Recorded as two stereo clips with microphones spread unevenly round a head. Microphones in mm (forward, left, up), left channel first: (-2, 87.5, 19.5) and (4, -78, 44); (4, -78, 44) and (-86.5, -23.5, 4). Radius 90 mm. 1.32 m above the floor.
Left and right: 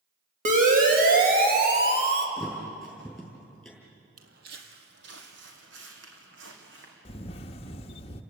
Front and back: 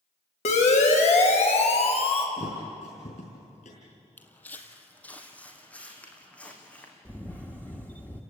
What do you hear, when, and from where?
0.5 s a siren: 40° right, 3.5 m; by 2.3 s 65° right, 3 m
2.4 s a thud: straight ahead, 5.5 m
4.2 s footsteps: 80° right, 2 m; by 7.0 s 105° right, 5 m
7.0 s a camera shutter: 35° left, 1.0 m